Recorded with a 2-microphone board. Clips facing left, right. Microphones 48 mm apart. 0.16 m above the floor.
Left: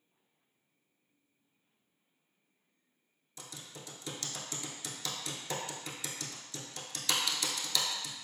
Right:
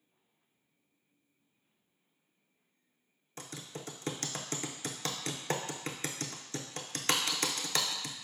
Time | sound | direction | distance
3.4 | typing on a keyboard | 50° right (ahead or behind) | 0.5 m